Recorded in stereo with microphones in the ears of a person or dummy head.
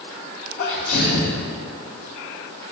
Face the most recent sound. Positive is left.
turn(degrees=60)  # may be behind; listen again after turning